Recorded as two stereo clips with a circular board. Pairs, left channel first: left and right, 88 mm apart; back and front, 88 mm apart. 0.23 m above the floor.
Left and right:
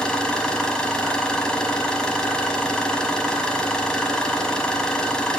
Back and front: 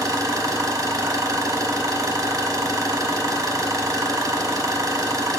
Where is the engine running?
15° left, 0.9 m.